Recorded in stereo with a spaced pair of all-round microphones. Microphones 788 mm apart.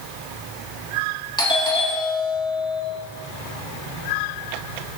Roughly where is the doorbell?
Centre.